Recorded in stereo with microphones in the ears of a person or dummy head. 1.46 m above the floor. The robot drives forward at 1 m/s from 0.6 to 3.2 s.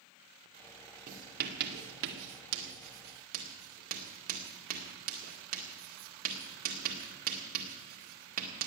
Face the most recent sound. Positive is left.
turn(degrees=-45)  # may be behind; listen again after turning